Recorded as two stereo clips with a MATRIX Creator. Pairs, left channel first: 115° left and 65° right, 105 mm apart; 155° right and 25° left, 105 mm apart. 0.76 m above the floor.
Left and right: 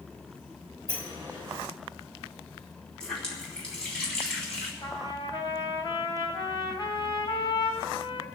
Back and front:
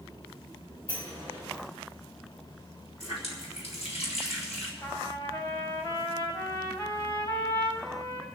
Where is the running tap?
165° right, 4 m.